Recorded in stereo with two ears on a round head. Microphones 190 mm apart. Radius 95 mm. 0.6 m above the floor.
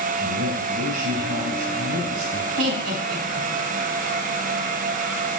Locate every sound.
0.2 s a man speaking: 65° right (ahead or behind), 3.5 m
2.6 s laughter: 75° right (ahead or behind), 5 m